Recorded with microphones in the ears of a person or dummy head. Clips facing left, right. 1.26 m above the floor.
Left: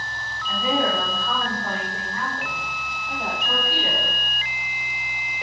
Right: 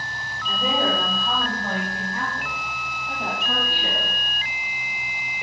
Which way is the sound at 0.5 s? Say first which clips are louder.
Left 1 dB; 25° right (ahead or behind).